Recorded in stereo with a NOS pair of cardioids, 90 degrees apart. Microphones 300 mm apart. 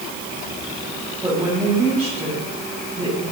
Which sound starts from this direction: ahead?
A woman speaking, at 1.2 s.